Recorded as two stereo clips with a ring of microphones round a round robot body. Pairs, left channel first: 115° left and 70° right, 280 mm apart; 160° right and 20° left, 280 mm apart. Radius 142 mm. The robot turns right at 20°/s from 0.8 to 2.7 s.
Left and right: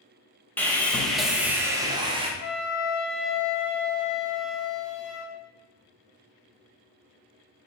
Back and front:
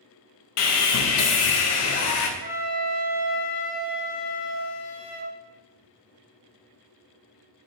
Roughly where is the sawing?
Behind.